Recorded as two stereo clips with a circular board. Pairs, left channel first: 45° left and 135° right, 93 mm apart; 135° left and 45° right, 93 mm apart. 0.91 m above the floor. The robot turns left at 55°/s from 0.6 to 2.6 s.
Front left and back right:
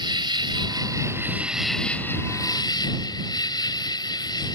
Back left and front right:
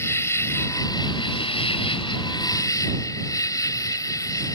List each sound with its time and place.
0.0 s an insect: 165° right; by 4.6 s 85° left